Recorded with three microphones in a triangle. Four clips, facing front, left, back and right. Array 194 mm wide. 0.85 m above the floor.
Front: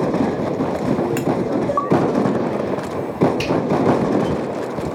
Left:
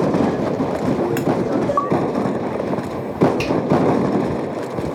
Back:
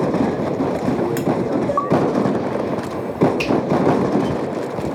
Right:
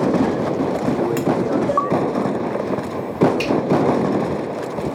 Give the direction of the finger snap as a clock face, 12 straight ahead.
9 o'clock.